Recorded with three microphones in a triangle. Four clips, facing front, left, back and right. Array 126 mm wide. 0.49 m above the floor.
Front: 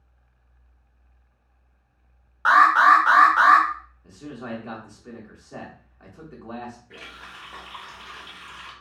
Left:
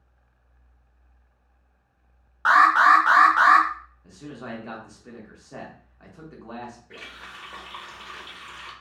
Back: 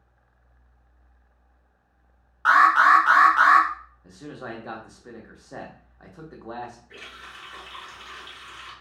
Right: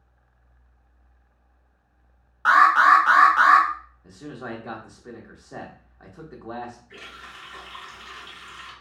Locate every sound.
2.5 s an alarm: 50° left, 1.0 m
4.0 s a man speaking: 145° right, 0.7 m
6.9 s a running tap: 70° left, 1.1 m